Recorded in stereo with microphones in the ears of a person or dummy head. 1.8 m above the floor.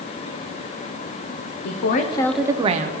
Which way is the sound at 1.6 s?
60° left (ahead or behind).